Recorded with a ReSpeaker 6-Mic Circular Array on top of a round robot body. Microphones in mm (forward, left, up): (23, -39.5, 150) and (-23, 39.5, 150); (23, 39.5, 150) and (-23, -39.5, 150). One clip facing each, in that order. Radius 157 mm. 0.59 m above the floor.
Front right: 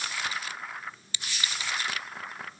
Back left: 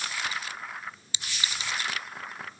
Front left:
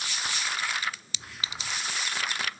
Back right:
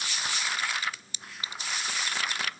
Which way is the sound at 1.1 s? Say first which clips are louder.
Even, front left 1 dB; 50° left.